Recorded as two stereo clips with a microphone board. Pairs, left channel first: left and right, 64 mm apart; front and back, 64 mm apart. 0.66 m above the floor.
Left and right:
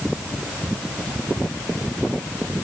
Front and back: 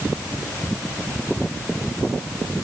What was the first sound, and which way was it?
Only background noise.